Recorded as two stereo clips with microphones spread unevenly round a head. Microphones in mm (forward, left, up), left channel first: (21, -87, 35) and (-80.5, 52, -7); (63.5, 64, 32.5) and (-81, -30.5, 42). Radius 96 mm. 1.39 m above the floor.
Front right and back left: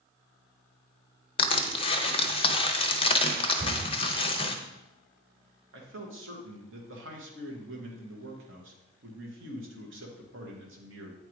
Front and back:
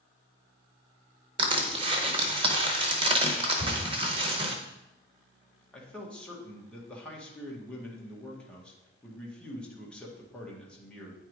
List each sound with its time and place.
1.4 s crushing: 90° right, 0.7 m
3.6 s a cupboard door: 155° left, 3.5 m
5.7 s a man speaking: 120° left, 1.7 m